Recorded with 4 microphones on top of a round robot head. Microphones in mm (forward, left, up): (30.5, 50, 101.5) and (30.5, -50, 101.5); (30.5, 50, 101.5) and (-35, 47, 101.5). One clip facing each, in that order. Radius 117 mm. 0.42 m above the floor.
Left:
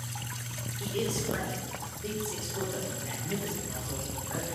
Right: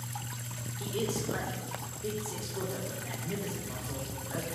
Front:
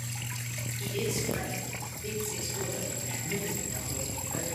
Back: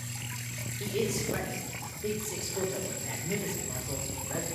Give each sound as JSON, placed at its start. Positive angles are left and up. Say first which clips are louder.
{"t": 0.8, "sound": "a man speaking", "louder": "left 1 dB, back 2 dB", "azimuth_deg": -170, "distance_m": 2.0}